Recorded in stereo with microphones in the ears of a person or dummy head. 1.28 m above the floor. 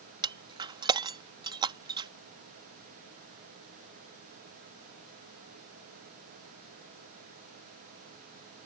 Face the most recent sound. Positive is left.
turn(degrees=-25)  # may be behind; listen again after turning